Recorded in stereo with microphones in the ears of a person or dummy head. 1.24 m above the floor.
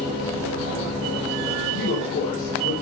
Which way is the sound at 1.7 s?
55° left (ahead or behind).